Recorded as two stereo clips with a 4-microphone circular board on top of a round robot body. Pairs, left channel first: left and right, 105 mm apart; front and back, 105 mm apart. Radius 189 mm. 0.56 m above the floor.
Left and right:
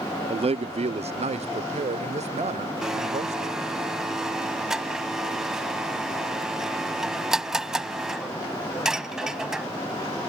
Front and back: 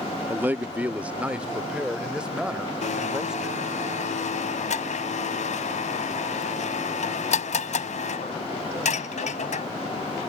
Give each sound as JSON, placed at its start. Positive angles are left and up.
{"t": 0.3, "sound": "a man speaking", "azimuth_deg": -110}
{"t": 2.8, "sound": "a blender", "azimuth_deg": -5}